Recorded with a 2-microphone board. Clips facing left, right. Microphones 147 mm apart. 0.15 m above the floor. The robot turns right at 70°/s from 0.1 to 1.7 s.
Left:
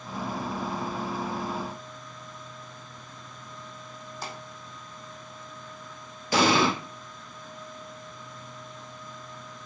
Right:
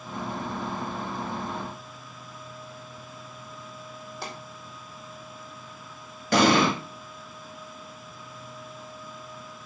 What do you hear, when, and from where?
4.2 s a pop: 75° right (ahead or behind), 2.5 m
6.3 s an explosion: 70° right (ahead or behind), 0.9 m